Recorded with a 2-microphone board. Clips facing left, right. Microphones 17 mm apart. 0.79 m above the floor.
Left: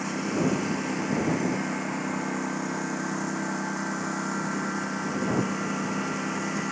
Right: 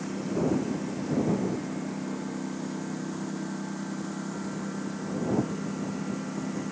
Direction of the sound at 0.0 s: 50° left (ahead or behind).